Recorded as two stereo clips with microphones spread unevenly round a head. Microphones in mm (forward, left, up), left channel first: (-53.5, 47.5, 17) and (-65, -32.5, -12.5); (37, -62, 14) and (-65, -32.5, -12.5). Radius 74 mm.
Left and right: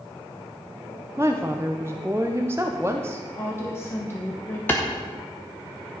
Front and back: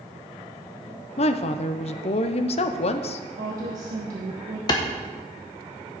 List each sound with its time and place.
1.2 s a woman speaking: 20° right, 0.7 m
3.4 s a woman speaking: 130° left, 1.2 m
4.7 s a clap: 25° left, 0.9 m